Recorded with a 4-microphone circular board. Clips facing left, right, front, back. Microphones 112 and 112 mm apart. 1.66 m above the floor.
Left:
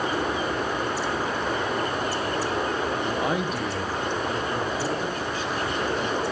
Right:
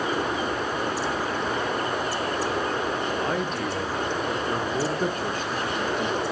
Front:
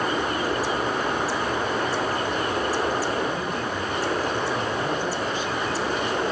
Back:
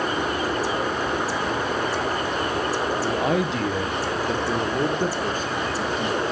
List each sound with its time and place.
3.0 s a man speaking: 160° left, 1.5 m; by 6.2 s 120° right, 2.5 m